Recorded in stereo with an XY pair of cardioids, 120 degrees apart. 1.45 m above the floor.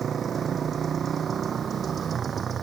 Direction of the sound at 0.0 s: 40° right.